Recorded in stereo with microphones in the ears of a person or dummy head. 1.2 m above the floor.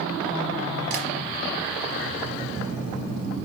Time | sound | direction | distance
0.9 | tapping | 45° right (ahead or behind) | 4 m